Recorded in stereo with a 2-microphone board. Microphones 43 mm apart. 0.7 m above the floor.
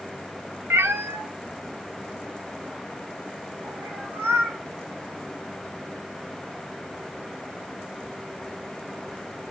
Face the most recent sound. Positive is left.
turn(degrees=-80)